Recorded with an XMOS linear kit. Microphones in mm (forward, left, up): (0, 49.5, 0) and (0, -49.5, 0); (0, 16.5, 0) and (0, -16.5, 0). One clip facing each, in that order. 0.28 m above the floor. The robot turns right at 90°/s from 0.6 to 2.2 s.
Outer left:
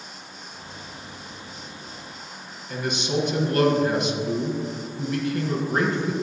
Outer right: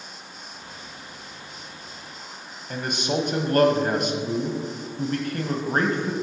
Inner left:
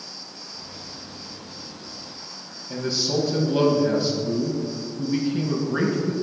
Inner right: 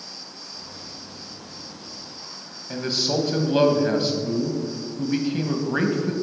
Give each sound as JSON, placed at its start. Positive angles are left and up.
{"t": 2.7, "sound": "a man speaking", "side_deg": -45, "distance_m": 1.5}